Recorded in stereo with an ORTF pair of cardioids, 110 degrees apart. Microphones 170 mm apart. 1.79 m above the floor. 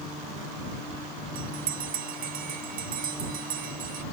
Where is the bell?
55° right.